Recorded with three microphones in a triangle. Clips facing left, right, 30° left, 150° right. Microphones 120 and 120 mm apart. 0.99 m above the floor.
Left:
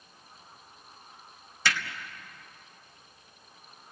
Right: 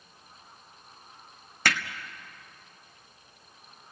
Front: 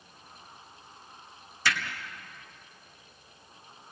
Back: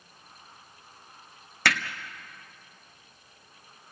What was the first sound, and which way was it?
Hammering, 125° right.